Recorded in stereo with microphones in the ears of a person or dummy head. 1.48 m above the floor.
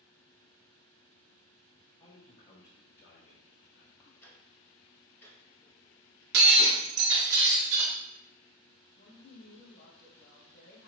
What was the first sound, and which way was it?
A man speaking, 25° left (ahead or behind).